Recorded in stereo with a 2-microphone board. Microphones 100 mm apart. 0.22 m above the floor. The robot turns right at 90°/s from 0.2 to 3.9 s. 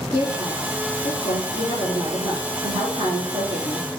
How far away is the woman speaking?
About 4 m.